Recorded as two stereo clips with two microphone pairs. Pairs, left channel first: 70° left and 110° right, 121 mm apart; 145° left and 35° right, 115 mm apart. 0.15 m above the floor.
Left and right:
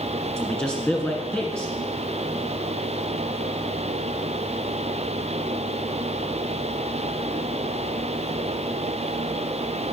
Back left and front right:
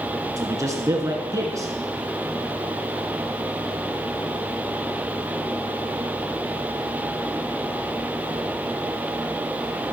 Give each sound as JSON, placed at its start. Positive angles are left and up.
{"t": 0.4, "sound": "a man speaking", "azimuth_deg": -10, "distance_m": 1.8}